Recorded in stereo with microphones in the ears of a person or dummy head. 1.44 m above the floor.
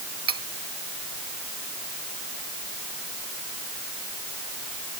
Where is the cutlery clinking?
25° right (ahead or behind).